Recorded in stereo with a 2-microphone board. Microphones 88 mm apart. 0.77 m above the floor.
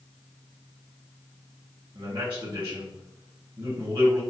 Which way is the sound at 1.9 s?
70° right (ahead or behind).